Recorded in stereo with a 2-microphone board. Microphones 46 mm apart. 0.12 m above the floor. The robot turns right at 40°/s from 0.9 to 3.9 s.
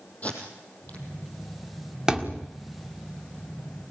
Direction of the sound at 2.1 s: 15° right (ahead or behind).